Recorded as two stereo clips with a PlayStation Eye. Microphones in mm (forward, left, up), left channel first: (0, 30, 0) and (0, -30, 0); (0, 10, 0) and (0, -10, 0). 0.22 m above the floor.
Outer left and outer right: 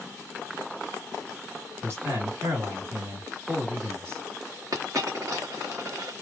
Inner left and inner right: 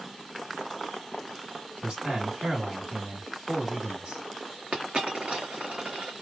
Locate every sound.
1.8 s a man speaking: 50° right (ahead or behind), 1.8 m
4.7 s a dropped coin: 80° right, 1.1 m